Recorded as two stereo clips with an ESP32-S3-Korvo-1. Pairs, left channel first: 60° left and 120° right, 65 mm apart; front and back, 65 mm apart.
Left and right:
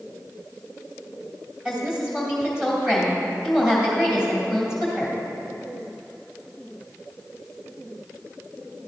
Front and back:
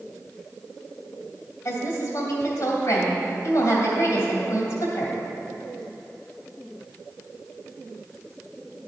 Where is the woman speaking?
40° right, 2.5 m.